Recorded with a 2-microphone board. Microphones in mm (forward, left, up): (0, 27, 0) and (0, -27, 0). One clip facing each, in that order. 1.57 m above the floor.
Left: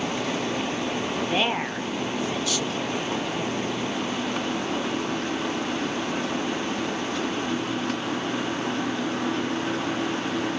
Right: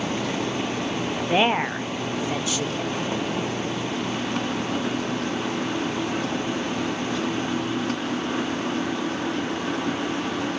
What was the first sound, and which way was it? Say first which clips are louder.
A woman speaking: right 7 dB; 25° right (ahead or behind).